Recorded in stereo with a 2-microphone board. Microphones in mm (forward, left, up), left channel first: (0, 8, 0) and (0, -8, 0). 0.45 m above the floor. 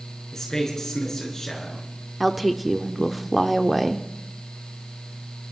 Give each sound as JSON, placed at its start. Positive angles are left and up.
{"t": 0.3, "sound": "a man speaking", "side_deg": 30, "distance_m": 5.5}
{"t": 2.2, "sound": "a woman speaking", "side_deg": 0, "distance_m": 0.8}